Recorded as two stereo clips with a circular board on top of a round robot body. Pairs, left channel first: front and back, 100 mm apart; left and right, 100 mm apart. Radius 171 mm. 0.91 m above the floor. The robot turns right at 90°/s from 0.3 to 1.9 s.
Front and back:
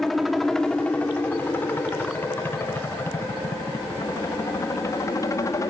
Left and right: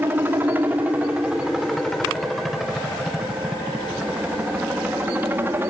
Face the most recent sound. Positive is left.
turn(degrees=-35)